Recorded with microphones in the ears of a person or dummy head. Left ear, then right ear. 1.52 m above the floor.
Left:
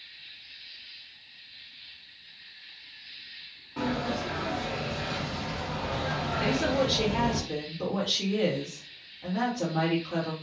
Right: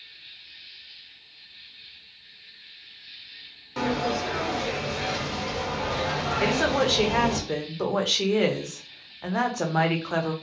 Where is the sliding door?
65° right (ahead or behind), 1.3 m.